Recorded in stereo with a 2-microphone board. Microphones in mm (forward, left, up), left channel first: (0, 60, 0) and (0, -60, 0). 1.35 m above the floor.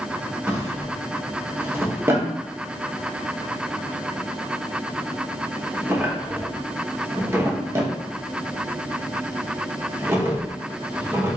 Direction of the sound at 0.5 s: 20° right (ahead or behind).